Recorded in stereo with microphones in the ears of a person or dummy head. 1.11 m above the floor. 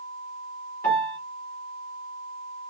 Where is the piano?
15° left (ahead or behind), 2.5 m.